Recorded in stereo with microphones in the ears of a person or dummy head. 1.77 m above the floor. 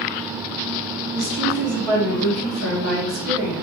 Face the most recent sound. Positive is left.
turn(degrees=-75)  # may be behind; listen again after turning